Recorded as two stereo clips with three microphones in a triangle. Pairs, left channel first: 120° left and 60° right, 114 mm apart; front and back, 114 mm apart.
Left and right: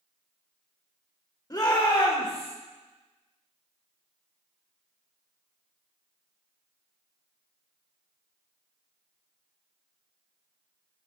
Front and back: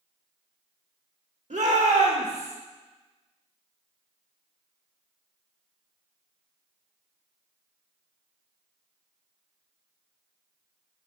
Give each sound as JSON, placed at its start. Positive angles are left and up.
{"t": 1.5, "sound": "a shout", "azimuth_deg": 175, "distance_m": 1.5}